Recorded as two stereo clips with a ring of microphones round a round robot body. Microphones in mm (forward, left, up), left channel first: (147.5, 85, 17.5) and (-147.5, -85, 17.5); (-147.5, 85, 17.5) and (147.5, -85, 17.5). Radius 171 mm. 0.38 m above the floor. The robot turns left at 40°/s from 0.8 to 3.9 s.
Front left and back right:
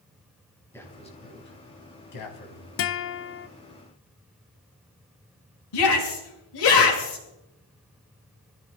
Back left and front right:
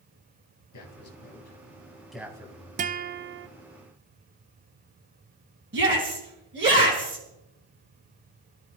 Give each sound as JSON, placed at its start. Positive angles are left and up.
{"t": 0.7, "sound": "a man speaking", "azimuth_deg": 115, "distance_m": 3.5}
{"t": 2.8, "sound": "a guitar", "azimuth_deg": 25, "distance_m": 0.6}
{"t": 5.7, "sound": "a shout", "azimuth_deg": 25, "distance_m": 4.5}